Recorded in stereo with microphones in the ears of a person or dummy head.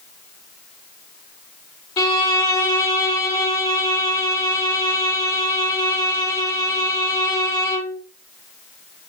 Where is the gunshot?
I don't hear a gunshot.